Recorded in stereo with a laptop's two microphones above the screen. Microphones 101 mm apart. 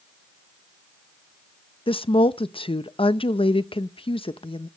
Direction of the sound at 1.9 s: 60° left (ahead or behind).